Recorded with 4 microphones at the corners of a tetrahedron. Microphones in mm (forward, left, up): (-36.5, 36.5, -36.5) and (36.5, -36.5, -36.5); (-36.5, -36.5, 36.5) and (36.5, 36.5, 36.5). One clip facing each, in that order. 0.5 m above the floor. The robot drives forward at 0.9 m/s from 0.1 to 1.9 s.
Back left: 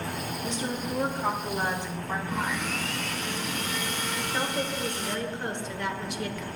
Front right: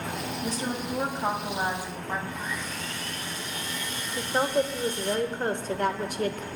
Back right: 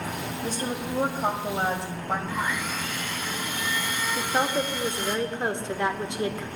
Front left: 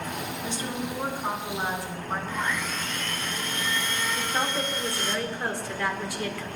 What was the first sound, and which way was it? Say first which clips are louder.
A woman speaking: even, back right 3 dB; 90° right.